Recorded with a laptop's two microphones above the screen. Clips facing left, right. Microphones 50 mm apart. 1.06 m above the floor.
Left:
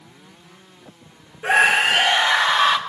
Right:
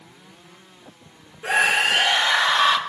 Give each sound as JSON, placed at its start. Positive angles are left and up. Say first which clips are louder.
{"t": 1.4, "sound": "a scream", "louder": "left 3 dB", "side_deg": 20, "distance_m": 2.0}